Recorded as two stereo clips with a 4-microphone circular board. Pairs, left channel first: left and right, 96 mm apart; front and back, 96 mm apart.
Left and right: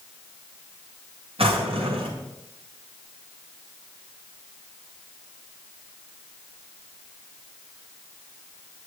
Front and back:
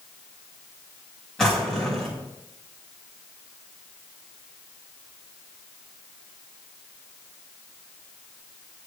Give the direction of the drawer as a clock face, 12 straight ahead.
3 o'clock.